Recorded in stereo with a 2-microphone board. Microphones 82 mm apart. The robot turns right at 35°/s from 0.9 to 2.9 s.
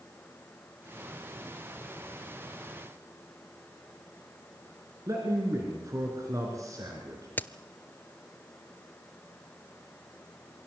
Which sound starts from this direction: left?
A crack, at 7.4 s.